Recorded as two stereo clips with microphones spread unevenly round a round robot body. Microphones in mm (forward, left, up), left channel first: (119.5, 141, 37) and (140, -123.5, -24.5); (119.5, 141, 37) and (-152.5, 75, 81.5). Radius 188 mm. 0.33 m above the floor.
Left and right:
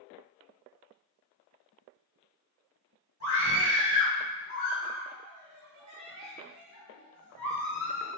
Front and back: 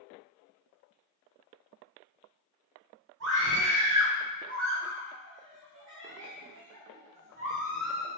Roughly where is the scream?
Behind right.